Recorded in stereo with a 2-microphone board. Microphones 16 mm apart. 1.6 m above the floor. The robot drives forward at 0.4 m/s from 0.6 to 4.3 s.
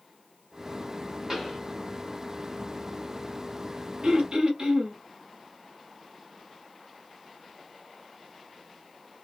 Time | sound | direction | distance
1.3 | a pop | 25° right (ahead or behind) | 1.7 m
4.0 | throat clearing | 70° right (ahead or behind) | 0.7 m